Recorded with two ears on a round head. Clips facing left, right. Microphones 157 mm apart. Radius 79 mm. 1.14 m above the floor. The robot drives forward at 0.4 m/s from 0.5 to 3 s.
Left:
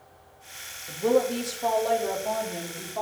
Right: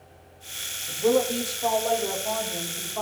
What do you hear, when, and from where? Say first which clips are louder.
0.9 s a woman speaking: right 1 dB; 10° left (ahead or behind), 1.3 m; by 3.0 s 5° left (ahead or behind), 2 m